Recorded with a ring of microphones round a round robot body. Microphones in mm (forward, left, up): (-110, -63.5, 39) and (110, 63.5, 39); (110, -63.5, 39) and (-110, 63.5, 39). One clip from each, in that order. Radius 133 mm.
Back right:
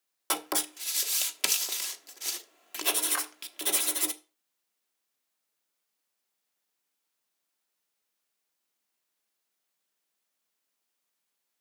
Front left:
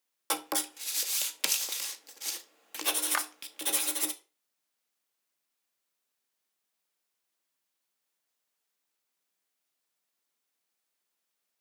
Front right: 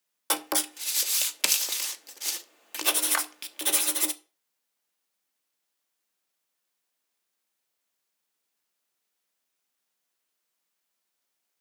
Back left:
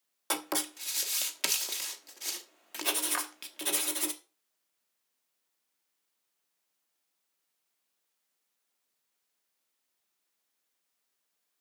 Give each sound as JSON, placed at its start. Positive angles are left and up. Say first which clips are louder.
{"t": 0.3, "sound": "writing", "louder": "back right 1 dB, front right 4 dB", "azimuth_deg": -65, "distance_m": 0.8}
{"t": 3.1, "sound": "a clap", "louder": "front left 2 dB, front right 5 dB", "azimuth_deg": -5, "distance_m": 1.1}